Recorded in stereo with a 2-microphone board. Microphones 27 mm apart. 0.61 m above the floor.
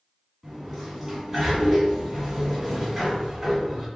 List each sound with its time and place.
0.4 s a sliding door: centre (ahead or behind), 1.7 m